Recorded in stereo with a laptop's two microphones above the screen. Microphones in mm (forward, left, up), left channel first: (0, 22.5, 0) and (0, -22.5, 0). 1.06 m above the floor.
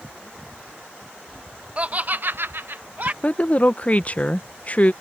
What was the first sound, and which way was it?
Laughter, 30° right (ahead or behind).